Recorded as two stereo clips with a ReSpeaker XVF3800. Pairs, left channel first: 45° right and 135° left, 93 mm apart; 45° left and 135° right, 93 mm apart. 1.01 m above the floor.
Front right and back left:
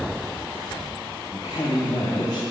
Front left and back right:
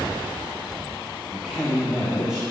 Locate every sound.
1.3 s a man speaking: 55° right, 1.3 m; by 2.4 s 50° right, 2.5 m